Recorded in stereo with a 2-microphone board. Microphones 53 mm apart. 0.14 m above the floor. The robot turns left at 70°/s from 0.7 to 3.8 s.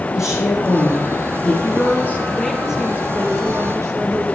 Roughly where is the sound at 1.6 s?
Ahead left.